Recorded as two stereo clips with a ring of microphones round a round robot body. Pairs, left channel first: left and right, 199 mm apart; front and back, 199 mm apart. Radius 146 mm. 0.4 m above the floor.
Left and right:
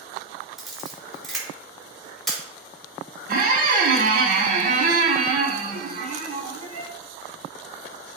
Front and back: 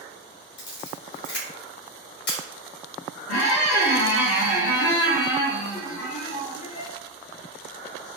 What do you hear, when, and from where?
0.6 s a camera shutter: straight ahead, 1.6 m
3.3 s a squeak: 45° right, 0.6 m